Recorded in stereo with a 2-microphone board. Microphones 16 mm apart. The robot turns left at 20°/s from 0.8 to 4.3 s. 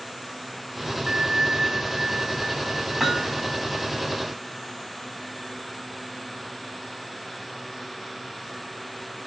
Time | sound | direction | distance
1.1 | a bell | 100° right | 1.3 m
3.0 | hammering | 10° right (ahead or behind) | 5 m